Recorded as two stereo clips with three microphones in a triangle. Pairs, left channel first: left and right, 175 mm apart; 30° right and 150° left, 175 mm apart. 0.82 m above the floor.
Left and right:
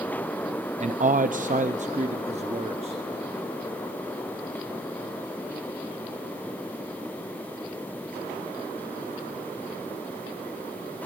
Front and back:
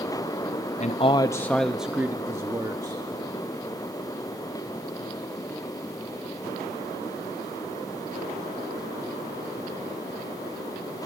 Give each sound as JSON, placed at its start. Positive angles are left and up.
{"t": 0.8, "sound": "a man speaking", "azimuth_deg": -60, "distance_m": 0.5}